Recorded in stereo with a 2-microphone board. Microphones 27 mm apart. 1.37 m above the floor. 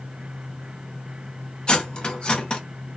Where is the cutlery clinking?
40° left (ahead or behind), 0.7 m.